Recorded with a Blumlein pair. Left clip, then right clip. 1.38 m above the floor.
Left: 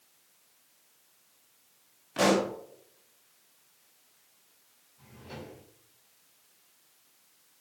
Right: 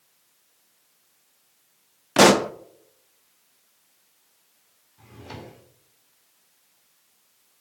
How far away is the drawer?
About 2.5 m.